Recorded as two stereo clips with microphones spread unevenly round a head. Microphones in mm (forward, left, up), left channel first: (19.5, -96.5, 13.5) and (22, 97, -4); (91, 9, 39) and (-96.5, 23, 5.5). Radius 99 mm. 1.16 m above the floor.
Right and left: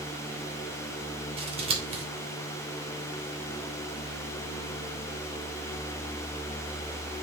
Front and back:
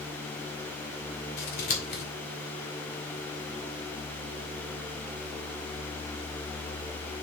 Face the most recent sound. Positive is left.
turn(degrees=30)